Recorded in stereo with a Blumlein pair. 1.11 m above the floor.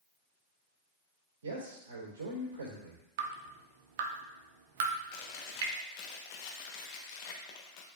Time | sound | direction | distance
1.4 | a man speaking | 65° right | 3.5 m
3.2 | dripping | 55° right | 1.0 m
5.1 | chewing | 45° left | 1.2 m